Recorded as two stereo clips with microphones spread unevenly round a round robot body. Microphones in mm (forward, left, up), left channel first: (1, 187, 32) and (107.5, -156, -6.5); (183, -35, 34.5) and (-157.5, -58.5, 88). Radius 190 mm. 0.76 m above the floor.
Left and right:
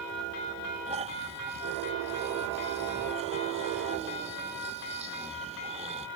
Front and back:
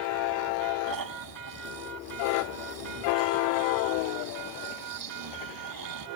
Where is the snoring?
145° right.